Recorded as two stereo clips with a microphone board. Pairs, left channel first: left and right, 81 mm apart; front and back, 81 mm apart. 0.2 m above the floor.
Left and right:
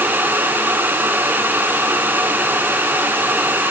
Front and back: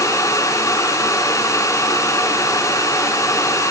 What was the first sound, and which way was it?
Only background noise.